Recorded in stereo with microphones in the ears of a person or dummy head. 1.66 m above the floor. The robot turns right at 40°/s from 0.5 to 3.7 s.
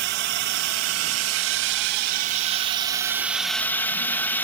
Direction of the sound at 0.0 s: 120° right.